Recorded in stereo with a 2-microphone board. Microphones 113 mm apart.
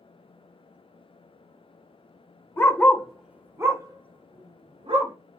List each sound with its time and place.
2.6 s a dog barking: 20° left (ahead or behind), 0.8 m; by 5.1 s 55° right (ahead or behind), 1.3 m